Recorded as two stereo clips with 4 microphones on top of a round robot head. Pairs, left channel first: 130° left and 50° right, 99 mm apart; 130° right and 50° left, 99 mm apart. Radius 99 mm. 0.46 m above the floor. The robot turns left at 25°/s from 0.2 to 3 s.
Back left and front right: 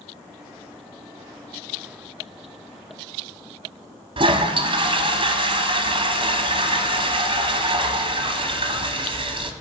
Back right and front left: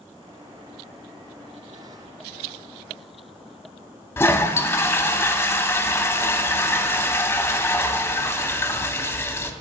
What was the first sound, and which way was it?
A toilet flushing, 70° right.